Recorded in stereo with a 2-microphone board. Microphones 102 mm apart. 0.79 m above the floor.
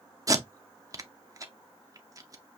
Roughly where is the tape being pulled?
Right.